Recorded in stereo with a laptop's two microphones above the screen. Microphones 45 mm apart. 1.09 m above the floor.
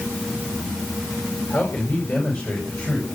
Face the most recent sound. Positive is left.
turn(degrees=45)  # may be behind; listen again after turning